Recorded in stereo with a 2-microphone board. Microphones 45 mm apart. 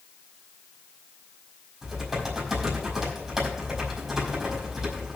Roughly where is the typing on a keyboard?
Centre.